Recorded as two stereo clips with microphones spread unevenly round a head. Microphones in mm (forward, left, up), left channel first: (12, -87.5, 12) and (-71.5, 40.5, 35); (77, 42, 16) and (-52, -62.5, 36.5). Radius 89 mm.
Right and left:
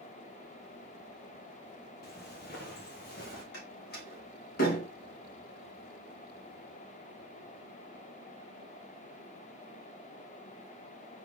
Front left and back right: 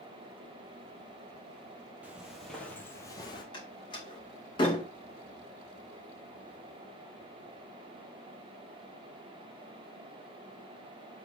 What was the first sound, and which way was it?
Footsteps, 65° right.